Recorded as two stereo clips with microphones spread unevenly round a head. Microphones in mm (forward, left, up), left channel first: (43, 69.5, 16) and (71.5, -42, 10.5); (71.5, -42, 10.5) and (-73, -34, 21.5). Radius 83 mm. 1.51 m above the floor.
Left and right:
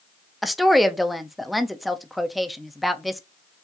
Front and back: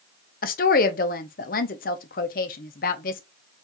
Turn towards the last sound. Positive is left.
turn(degrees=15)